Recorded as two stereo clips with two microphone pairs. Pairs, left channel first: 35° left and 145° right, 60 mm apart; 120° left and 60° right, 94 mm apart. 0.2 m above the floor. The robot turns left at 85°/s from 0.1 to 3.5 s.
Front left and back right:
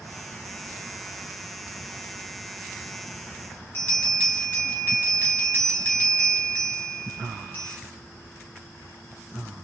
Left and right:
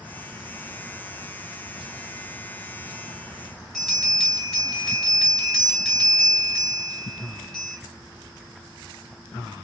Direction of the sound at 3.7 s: 35° left.